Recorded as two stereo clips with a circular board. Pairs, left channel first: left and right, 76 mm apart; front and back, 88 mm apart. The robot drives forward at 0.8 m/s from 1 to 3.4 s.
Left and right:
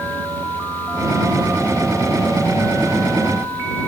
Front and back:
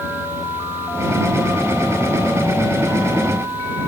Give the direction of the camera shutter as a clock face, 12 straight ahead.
No camera shutter in this recording.